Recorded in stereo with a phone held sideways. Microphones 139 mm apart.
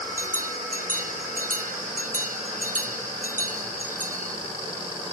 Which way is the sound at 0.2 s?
75° right (ahead or behind).